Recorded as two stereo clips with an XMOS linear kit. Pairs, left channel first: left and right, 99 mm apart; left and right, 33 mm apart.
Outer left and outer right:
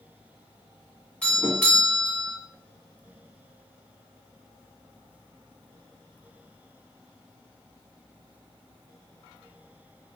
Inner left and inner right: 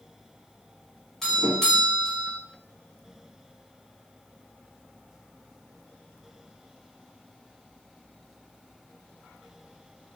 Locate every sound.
1.2 s a doorbell: 10° left (ahead or behind), 1.5 m